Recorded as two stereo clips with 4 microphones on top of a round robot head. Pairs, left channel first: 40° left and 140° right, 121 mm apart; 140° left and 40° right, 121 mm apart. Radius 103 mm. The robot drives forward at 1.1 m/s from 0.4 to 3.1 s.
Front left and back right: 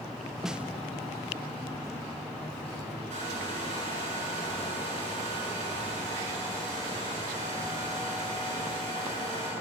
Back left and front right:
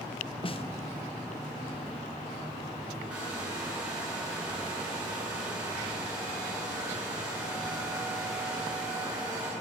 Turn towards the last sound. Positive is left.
turn(degrees=-125)